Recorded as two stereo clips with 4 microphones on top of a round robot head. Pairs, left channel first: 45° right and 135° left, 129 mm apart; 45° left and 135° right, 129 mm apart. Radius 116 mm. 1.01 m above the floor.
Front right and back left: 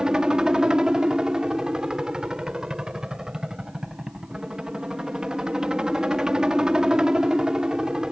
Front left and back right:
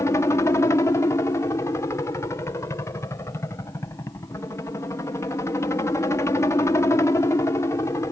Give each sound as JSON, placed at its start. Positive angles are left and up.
{"t": 0.0, "sound": "a helicopter", "azimuth_deg": 60}